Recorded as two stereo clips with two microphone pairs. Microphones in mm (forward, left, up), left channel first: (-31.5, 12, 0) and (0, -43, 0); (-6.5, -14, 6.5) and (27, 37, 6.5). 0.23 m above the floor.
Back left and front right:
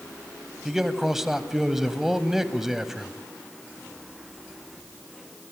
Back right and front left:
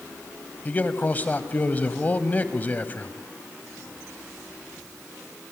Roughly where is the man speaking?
Behind right.